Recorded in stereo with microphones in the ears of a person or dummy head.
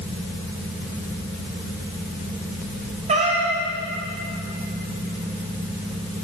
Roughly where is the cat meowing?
Right.